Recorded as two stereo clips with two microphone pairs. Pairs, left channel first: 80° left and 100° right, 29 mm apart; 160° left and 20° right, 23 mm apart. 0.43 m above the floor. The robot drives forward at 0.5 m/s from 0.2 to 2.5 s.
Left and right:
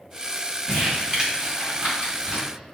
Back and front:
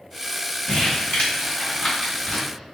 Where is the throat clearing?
I don't hear throat clearing.